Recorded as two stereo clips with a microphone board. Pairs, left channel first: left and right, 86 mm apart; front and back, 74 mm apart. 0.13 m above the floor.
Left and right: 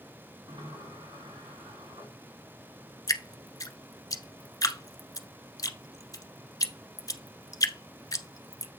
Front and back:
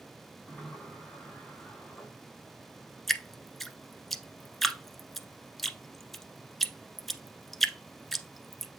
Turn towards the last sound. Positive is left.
turn(degrees=90)